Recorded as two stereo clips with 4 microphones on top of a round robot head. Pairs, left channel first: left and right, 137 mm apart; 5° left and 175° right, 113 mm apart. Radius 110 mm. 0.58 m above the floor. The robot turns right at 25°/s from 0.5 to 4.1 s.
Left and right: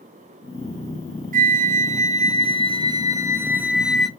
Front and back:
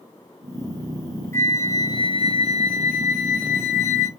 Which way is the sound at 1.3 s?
70° right.